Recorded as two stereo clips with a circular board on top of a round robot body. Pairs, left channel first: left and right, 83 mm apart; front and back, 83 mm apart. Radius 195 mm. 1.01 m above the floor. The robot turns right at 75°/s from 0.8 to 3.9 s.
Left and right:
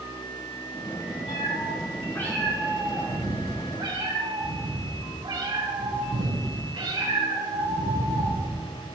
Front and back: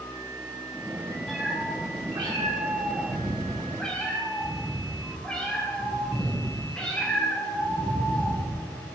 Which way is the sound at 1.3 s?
85° left.